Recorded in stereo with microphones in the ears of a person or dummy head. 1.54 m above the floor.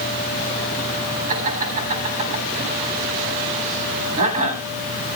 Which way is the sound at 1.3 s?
40° right (ahead or behind).